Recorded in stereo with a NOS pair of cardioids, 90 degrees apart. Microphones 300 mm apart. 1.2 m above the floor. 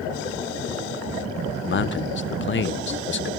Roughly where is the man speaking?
Ahead left.